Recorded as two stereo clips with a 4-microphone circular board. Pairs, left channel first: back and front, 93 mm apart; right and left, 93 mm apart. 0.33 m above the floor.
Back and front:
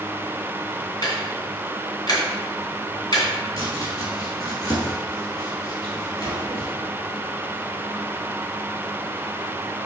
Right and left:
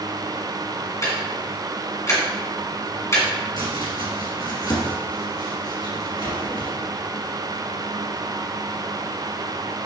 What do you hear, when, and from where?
1.0 s ticking: 145° right, 2 m
3.6 s chopping: 130° right, 2.5 m